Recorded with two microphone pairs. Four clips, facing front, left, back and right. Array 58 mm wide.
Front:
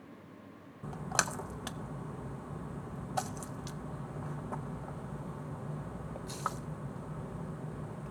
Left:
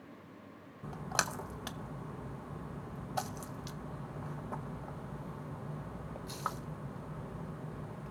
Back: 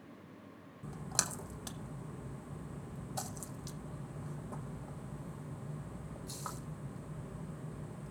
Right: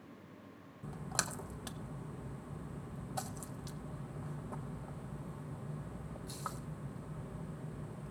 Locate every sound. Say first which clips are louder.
0.8 s a splash: left 5 dB, front 7 dB; 35° left, 0.8 m